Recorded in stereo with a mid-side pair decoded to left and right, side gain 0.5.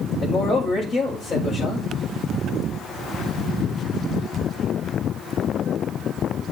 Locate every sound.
0.2 s a man speaking: 45° left, 6.5 m